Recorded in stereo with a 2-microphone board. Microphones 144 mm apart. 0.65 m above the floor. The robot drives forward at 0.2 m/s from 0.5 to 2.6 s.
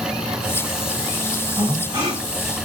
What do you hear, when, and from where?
1.6 s breathing: 25° right (ahead or behind), 1.7 m